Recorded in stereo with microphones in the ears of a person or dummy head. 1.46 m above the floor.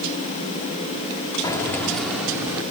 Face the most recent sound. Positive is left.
turn(degrees=-15)  # may be behind; listen again after turning